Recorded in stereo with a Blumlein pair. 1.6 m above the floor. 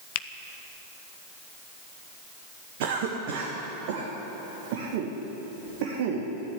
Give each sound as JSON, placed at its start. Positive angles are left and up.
{"t": 0.1, "sound": "a finger snap", "azimuth_deg": 50, "distance_m": 0.7}
{"t": 2.8, "sound": "a cough", "azimuth_deg": -50, "distance_m": 2.0}